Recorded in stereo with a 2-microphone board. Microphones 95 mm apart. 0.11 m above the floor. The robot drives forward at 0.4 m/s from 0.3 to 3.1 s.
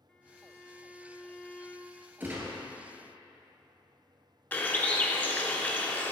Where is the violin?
10° left (ahead or behind), 0.6 m.